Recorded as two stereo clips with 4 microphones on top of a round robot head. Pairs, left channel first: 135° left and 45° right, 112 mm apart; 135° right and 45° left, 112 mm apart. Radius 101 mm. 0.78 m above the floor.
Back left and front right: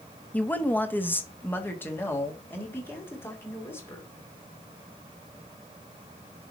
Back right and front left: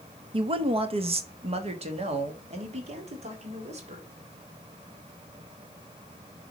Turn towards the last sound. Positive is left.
turn(degrees=65)